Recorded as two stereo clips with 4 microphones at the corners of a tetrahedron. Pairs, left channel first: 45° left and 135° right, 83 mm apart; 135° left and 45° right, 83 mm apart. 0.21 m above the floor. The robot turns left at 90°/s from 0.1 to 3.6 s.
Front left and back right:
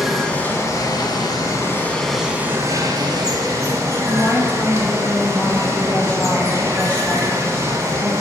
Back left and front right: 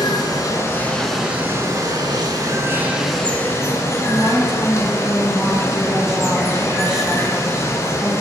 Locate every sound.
0.0 s running water: 135° left, 1.0 m; by 8.2 s straight behind, 1.0 m
4.1 s a woman speaking: 35° left, 1.2 m